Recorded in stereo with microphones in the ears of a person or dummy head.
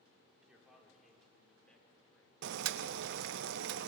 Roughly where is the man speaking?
Centre.